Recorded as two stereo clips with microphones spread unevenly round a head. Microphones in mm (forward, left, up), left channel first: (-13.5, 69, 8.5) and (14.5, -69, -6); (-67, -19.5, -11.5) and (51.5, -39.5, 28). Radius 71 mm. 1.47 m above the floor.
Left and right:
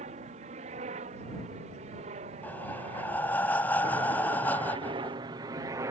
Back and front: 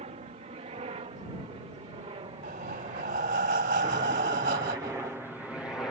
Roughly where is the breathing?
Ahead left.